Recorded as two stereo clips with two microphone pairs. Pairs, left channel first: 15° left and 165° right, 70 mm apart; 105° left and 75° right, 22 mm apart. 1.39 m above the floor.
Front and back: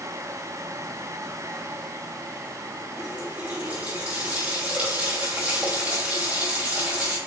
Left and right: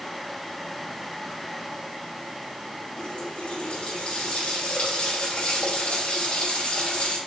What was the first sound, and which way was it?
A running tap, 130° left.